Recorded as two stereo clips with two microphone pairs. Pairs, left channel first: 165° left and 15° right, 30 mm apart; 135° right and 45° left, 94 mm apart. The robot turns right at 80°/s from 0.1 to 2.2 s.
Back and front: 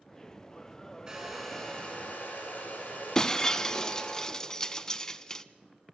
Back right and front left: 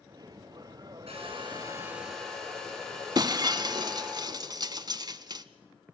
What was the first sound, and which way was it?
A hair dryer, 45° left.